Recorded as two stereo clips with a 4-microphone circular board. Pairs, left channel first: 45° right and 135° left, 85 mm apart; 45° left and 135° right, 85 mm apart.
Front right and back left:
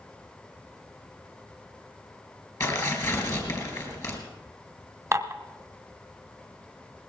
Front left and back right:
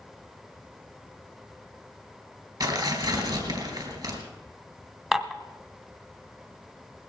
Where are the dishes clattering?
140° left, 1.0 m.